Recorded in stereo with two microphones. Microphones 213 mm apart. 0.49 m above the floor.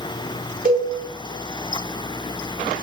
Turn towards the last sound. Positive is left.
turn(degrees=-40)  # may be behind; listen again after turning